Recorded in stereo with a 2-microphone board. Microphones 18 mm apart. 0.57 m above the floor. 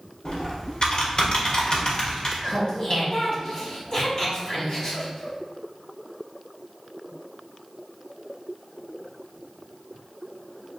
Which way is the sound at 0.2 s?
45° left (ahead or behind).